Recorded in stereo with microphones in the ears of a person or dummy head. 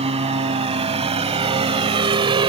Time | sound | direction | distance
0.0 | a lawn mower | 30° right (ahead or behind) | ?